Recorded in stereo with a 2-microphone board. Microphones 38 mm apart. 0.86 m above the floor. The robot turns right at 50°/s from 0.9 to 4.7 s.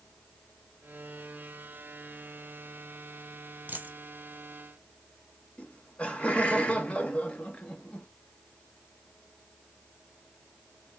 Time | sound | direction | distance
3.7 | a dropped coin | 50° right (ahead or behind) | 1.2 m
5.6 | laughter | 30° left (ahead or behind) | 0.8 m